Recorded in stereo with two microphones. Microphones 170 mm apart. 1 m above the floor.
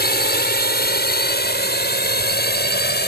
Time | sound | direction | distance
0.0 | a drone | 75° left (ahead or behind) | ?